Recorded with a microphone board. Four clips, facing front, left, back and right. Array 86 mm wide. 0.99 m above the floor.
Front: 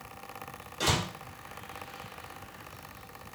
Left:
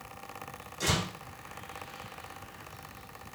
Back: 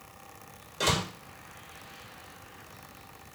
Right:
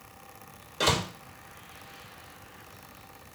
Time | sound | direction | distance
0.8 | a door slam | 100° right | 1.2 m